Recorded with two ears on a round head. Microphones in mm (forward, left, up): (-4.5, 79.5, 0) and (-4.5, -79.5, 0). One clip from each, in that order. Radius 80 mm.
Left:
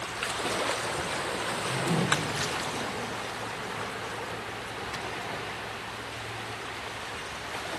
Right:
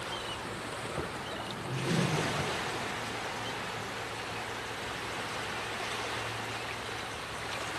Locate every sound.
1.4 s a whoosh: 60° left (ahead or behind), 1.4 m